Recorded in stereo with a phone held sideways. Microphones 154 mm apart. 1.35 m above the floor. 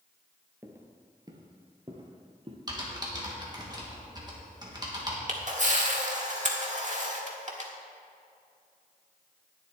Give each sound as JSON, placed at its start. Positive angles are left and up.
{"t": 0.6, "sound": "footsteps", "side_deg": -20, "distance_m": 1.4}
{"t": 2.7, "sound": "typing on a keyboard", "side_deg": -25, "distance_m": 1.9}
{"t": 5.3, "sound": "a camera shutter", "side_deg": -50, "distance_m": 1.4}